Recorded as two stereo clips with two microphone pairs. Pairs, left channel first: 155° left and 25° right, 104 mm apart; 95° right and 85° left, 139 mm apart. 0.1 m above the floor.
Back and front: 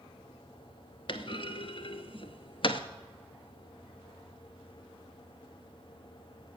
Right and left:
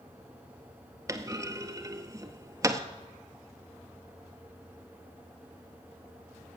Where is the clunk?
150° left, 0.7 m.